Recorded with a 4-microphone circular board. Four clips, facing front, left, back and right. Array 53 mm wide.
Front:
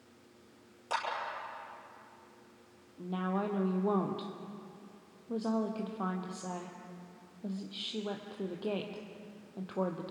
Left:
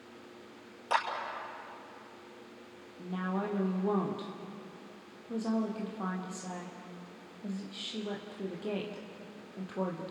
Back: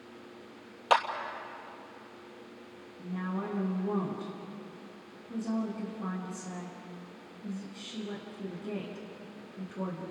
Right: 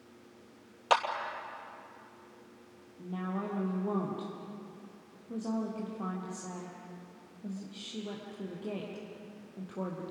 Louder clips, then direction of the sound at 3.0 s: Left 2 dB, front 2 dB; 15° left.